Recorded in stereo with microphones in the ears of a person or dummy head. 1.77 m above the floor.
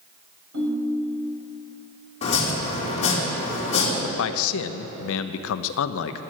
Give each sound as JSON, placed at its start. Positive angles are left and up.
{"t": 0.5, "sound": "a ringtone", "side_deg": -75, "distance_m": 4.5}
{"t": 2.2, "sound": "chopping", "side_deg": 30, "distance_m": 3.5}
{"t": 4.0, "sound": "a man speaking", "side_deg": 70, "distance_m": 0.7}